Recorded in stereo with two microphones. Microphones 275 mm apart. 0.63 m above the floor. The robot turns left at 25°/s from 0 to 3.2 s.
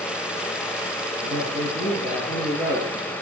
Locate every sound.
1.2 s a man speaking: 145° right, 8.5 m; by 3.1 s 170° left, 8.5 m